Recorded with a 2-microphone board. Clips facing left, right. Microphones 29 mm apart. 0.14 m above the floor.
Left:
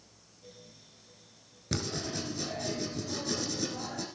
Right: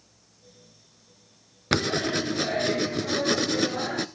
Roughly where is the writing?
Right.